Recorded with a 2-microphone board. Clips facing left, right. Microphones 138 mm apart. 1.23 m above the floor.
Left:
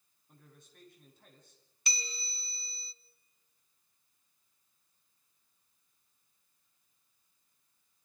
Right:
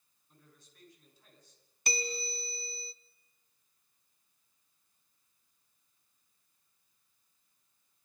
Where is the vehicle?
No vehicle in this recording.